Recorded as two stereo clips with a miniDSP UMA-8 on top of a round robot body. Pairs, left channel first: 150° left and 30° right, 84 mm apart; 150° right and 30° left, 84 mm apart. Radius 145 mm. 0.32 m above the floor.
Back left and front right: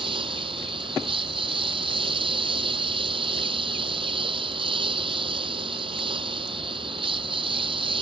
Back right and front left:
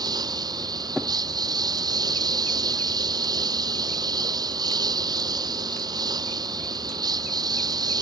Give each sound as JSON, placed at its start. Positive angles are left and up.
{"t": 0.0, "sound": "a lawn mower", "azimuth_deg": -10}